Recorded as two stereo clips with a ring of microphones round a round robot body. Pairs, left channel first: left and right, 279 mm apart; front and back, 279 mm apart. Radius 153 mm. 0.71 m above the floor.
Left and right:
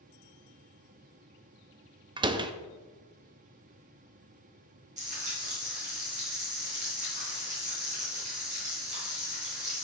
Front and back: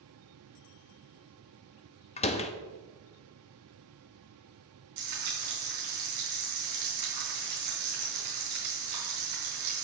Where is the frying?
160° right, 3.5 m.